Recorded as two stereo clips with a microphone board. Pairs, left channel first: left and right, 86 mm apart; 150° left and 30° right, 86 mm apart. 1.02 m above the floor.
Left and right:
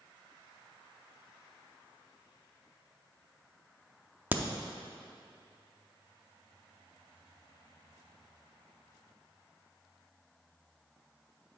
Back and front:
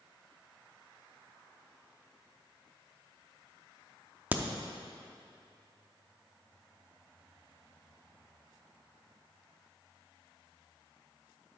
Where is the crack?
70° right, 0.5 m.